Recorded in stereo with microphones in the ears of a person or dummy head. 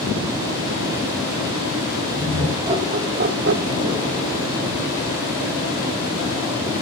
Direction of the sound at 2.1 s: 20° right (ahead or behind).